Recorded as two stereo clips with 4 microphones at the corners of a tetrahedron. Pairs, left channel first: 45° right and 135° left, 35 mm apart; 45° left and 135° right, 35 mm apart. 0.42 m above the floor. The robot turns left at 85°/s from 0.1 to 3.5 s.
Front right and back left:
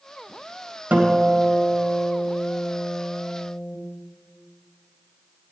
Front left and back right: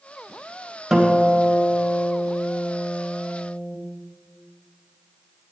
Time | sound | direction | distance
0.9 | a guitar | 150° left | 2.5 m